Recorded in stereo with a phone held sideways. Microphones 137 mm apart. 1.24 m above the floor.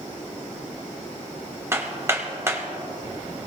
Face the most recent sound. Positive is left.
turn(degrees=-20)  # may be behind; listen again after turning